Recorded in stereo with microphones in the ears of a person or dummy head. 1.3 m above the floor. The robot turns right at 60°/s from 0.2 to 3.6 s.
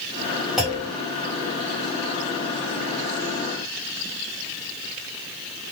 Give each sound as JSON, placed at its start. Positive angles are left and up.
{"t": 0.6, "sound": "a clunk", "side_deg": 0, "distance_m": 1.1}